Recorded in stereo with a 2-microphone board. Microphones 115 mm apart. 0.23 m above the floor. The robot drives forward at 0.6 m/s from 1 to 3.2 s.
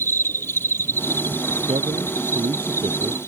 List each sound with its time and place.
0.0 s an insect: 20° left (ahead or behind); by 3.3 s 25° left (ahead or behind)
1.7 s a man speaking: 60° right (ahead or behind); by 3.2 s 55° right (ahead or behind)